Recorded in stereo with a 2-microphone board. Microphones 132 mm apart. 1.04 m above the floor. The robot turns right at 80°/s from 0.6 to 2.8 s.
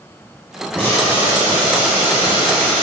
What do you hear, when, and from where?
0.8 s boiling: 15° left, 1.4 m; by 2.8 s straight behind, 1.4 m